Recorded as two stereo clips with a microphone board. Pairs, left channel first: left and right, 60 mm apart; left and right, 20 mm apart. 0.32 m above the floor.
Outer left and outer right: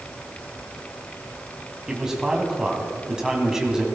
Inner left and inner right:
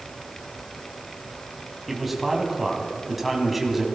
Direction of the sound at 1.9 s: 10° right (ahead or behind).